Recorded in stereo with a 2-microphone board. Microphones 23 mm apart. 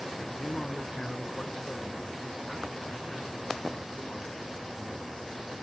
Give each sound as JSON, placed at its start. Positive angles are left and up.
{"t": 0.4, "sound": "a man speaking", "side_deg": 25, "distance_m": 1.1}